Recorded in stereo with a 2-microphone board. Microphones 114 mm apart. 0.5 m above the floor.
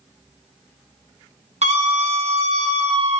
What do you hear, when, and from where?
1.6 s a scream: 75° right (ahead or behind), 5.5 m